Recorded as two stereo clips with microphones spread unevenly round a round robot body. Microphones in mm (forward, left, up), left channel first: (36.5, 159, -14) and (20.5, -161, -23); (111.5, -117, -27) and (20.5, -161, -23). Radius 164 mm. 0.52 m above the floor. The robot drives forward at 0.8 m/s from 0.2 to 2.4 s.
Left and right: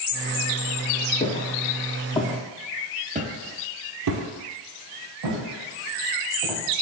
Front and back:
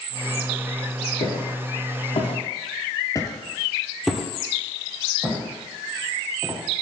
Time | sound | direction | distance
1.2 | footsteps | 20° left | 2.0 m